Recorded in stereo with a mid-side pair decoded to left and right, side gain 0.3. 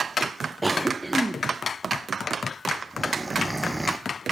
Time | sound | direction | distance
0.6 | a cough | 15° right | 0.6 m